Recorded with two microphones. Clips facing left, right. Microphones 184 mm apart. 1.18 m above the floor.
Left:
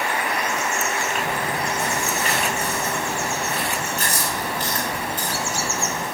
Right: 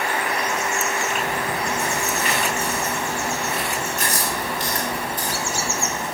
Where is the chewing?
40° left (ahead or behind), 6.5 m.